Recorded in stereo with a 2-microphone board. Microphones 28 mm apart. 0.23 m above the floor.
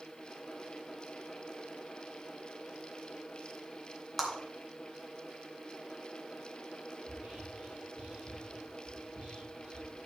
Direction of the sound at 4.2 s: Centre (ahead or behind).